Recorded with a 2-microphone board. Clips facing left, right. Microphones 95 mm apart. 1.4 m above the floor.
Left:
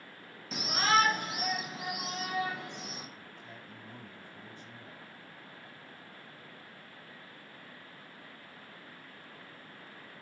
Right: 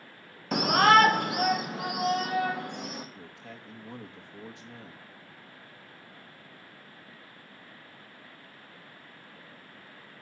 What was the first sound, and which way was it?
A shout, 60° right (ahead or behind).